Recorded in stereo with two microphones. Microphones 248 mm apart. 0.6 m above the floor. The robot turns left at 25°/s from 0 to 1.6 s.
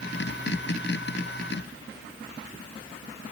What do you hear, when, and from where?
Only background noise.